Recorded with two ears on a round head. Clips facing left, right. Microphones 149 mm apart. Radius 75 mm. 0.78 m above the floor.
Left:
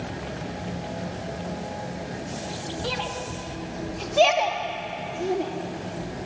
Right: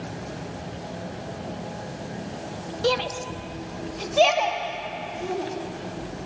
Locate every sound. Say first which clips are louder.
2.8 s a shout: right 9 dB; 60° right (ahead or behind), 1.2 m; by 5.5 s 25° left (ahead or behind), 2 m